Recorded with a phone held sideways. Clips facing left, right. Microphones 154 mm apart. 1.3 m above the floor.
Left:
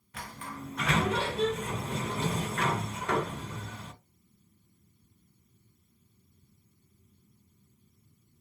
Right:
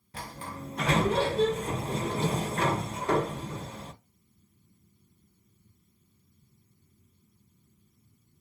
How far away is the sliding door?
About 0.5 m.